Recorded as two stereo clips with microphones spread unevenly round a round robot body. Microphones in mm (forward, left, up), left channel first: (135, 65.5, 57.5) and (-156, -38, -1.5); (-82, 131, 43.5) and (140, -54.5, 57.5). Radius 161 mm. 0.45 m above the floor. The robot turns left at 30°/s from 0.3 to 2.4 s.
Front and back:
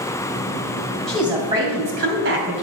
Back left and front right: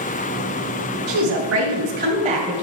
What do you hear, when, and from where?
1.1 s a woman speaking: 75° right, 3 m; by 2.6 s 115° right, 3 m